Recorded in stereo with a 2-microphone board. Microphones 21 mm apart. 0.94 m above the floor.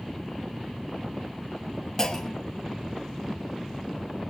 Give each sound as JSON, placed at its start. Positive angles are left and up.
{"t": 2.0, "sound": "a clunk", "side_deg": 25, "distance_m": 1.1}